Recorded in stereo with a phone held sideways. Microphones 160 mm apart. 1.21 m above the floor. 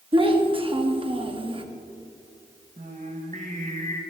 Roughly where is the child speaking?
Right.